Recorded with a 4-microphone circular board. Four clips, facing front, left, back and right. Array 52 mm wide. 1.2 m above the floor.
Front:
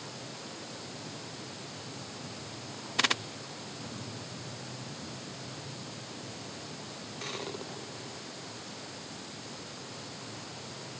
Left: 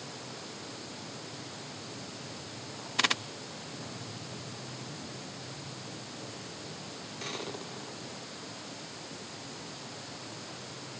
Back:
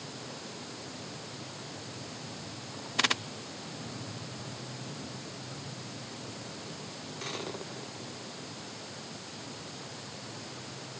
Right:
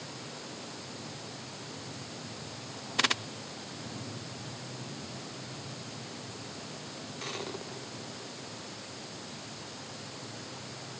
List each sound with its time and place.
Only background noise.